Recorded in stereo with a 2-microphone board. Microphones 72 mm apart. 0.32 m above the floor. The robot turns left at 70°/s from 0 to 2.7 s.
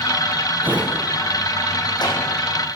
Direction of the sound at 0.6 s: 25° right (ahead or behind).